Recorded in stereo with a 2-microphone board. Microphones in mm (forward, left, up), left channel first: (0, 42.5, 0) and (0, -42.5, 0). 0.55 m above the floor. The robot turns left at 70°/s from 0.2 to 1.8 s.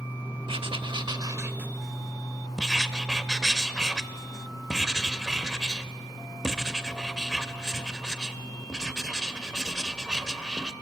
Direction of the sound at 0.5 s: 80° right.